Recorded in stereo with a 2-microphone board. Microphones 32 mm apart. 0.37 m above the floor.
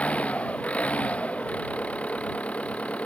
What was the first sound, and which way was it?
An engine running, 40° left (ahead or behind).